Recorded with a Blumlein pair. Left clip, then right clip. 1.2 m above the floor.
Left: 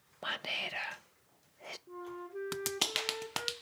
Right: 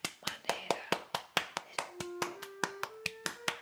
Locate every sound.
0.2 s whispering: 60° left, 0.6 m
1.9 s a flute: 60° left, 1.4 m